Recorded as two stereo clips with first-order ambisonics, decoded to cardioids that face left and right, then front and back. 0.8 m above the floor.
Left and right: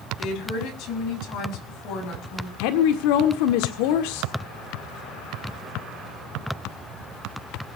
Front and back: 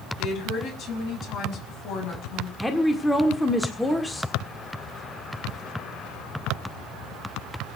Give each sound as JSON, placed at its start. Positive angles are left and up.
{"t": 0.2, "sound": "a woman speaking", "azimuth_deg": 55, "distance_m": 6.0}
{"t": 2.6, "sound": "a woman speaking", "azimuth_deg": 85, "distance_m": 1.7}